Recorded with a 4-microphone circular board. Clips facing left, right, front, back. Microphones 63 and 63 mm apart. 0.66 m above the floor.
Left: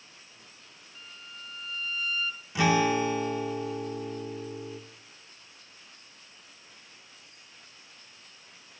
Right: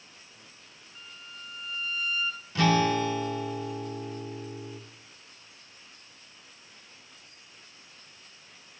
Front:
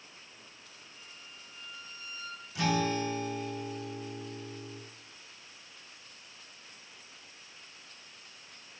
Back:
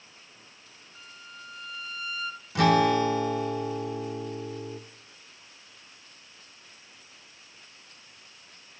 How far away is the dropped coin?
No dropped coin in this recording.